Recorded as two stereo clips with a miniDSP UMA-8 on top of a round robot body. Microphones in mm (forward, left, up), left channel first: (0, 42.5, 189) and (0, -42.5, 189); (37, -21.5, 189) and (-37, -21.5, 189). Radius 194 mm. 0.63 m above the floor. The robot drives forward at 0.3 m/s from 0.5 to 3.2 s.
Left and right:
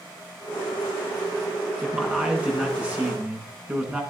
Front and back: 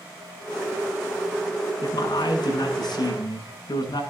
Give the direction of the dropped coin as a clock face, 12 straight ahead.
No dropped coin in this recording.